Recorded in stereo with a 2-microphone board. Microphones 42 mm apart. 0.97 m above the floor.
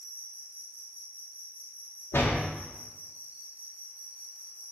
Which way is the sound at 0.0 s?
45° right (ahead or behind).